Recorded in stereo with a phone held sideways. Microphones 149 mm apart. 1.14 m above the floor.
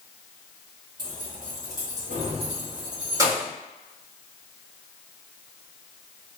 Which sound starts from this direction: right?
Keys jangling, at 1.0 s.